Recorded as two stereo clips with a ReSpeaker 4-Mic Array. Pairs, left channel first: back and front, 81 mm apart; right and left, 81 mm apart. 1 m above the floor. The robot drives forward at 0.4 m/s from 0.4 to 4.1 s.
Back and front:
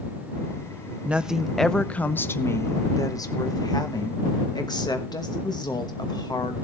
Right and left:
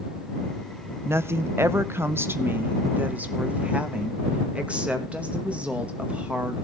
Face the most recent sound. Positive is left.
turn(degrees=160)